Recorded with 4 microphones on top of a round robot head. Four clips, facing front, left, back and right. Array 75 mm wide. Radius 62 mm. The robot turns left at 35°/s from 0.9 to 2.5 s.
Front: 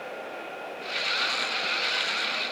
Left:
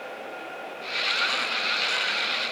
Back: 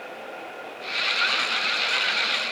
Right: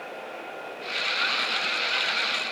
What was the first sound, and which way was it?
Only background noise.